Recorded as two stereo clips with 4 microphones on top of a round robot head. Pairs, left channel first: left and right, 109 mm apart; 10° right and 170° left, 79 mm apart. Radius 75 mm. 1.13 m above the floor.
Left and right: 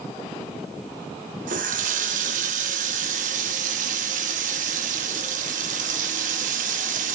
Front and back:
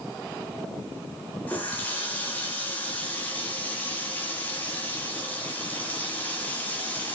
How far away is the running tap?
About 1.0 m.